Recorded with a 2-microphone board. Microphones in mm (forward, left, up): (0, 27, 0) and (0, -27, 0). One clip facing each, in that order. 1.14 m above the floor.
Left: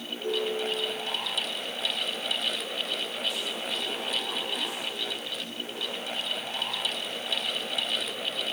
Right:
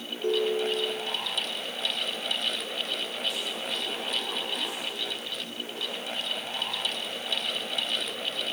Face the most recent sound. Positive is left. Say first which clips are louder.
# right 3 dB
turn(degrees=-65)  # may be behind; listen again after turning